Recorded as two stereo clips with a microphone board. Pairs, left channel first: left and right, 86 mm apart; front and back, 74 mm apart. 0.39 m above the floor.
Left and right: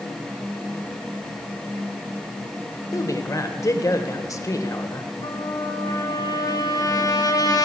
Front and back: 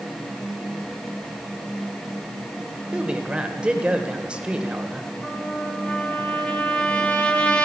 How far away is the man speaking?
About 1.3 m.